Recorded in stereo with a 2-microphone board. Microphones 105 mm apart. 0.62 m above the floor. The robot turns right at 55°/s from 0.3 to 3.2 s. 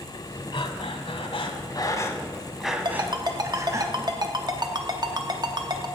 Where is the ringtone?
45° right (ahead or behind), 0.7 m; by 5.9 s 40° right (ahead or behind), 0.7 m.